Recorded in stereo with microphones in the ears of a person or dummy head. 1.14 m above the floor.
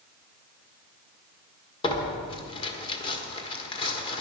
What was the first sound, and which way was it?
Tearing paper, 25° left (ahead or behind).